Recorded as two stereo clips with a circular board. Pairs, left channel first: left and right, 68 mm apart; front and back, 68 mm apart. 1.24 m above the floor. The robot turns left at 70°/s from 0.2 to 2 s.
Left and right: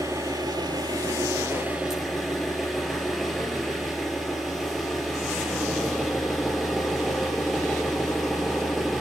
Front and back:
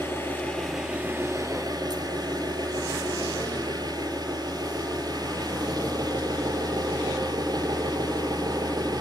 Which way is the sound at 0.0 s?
55° right.